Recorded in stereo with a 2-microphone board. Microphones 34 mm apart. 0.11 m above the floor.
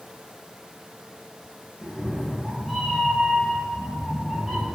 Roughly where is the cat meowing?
Centre.